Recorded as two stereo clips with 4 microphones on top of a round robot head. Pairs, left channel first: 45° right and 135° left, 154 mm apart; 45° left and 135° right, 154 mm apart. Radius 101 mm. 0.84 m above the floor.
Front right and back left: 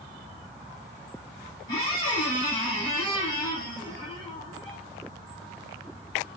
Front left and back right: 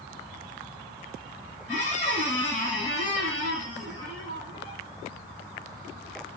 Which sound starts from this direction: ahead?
A squeak, at 1.7 s.